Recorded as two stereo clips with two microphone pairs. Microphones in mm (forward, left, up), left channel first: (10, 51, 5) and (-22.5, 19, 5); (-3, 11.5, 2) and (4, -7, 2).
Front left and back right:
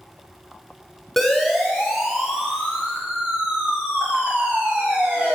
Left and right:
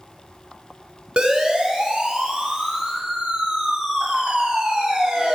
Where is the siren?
45° right, 4.5 m; by 5.3 s 75° right, 9 m.